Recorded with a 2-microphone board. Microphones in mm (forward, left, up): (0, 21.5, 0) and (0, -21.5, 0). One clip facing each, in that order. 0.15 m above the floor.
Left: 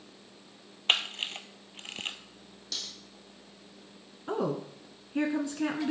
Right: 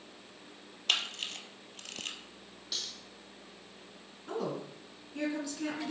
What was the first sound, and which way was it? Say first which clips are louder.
A camera shutter: left 4 dB; 30° left (ahead or behind).